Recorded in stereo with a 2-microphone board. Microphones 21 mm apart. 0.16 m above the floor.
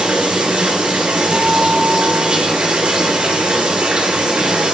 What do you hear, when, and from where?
0.0 s running water: 80° right, 1.8 m
1.3 s a guitar: 75° right (ahead or behind), 2.5 m